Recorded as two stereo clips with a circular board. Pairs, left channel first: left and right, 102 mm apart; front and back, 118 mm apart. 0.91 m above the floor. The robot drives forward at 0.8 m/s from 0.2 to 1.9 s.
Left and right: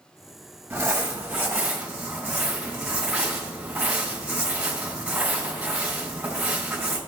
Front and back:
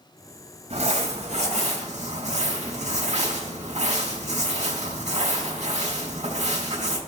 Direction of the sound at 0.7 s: 155° right.